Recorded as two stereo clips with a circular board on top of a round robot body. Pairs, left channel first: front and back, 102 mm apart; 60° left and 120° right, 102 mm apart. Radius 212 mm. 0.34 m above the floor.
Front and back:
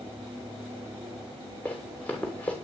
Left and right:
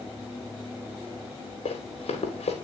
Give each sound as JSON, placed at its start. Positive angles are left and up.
{"t": 1.6, "sound": "running footsteps", "azimuth_deg": 75, "distance_m": 3.5}